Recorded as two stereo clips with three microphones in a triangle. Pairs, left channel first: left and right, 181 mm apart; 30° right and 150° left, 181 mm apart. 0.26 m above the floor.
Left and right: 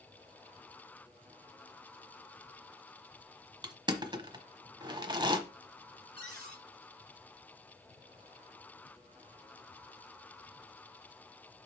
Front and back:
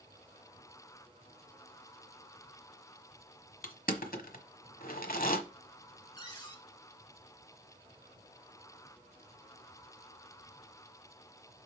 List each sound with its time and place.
3.6 s crushing: 30° right, 1.1 m
6.2 s a cupboard door: 90° right, 2 m